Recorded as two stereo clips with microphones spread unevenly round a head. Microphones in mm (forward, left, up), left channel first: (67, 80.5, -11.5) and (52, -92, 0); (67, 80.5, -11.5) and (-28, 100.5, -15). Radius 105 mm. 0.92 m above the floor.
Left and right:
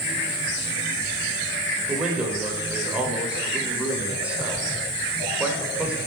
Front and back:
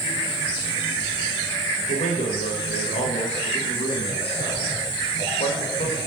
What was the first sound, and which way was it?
A man speaking, 10° right.